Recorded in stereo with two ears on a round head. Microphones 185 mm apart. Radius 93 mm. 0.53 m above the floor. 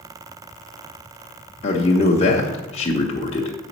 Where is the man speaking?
30° left (ahead or behind), 1.0 m.